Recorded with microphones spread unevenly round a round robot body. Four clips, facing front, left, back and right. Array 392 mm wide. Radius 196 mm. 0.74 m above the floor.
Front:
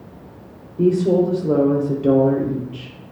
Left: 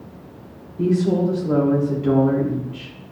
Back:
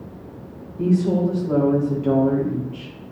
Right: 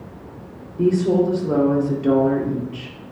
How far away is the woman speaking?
About 2.5 m.